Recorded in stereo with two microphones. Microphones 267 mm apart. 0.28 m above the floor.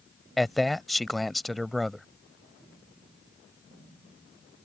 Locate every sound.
0.4 s a man speaking: centre (ahead or behind)